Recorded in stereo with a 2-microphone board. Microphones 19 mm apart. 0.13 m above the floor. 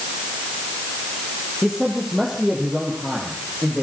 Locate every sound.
1.6 s a man speaking: 5° left (ahead or behind), 4 m; by 3.8 s 5° right (ahead or behind), 6.5 m